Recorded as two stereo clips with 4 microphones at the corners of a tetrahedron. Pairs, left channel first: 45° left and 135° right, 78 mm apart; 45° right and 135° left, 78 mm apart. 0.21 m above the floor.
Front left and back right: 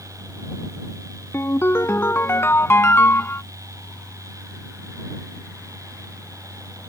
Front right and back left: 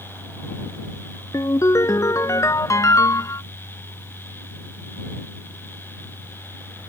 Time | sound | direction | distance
1.3 | a ringtone | 10° right | ?